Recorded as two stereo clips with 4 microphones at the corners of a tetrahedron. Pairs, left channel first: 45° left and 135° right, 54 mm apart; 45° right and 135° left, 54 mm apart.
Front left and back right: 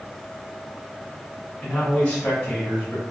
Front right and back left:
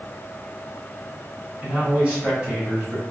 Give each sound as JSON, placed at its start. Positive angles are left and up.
{"t": 1.6, "sound": "a man speaking", "azimuth_deg": 90, "distance_m": 1.1}